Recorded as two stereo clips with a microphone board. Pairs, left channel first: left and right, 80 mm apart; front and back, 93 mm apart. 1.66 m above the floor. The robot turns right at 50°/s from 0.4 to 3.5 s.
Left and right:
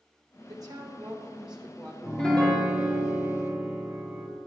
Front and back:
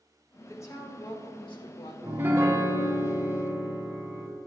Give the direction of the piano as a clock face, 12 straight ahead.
7 o'clock.